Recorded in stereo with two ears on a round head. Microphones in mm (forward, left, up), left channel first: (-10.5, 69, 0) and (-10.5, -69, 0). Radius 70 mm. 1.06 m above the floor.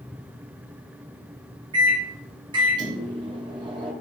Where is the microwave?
30° right (ahead or behind), 0.5 m.